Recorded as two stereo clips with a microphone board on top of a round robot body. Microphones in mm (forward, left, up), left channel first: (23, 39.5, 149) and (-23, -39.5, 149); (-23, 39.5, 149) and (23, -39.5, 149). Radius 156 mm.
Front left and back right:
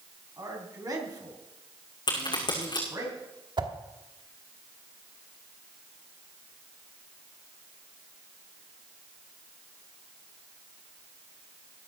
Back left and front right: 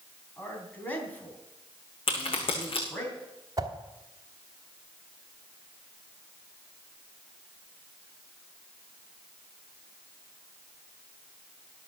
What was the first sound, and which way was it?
A man speaking, 170° right.